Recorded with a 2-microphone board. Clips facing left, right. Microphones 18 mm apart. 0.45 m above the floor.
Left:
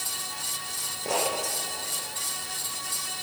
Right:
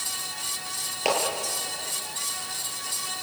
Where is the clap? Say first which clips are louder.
Right 4 dB; 65° right (ahead or behind), 9 m.